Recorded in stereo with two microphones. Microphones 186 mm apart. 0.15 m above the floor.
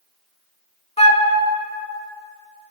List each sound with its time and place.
1.0 s a flute: 35° left (ahead or behind), 0.5 m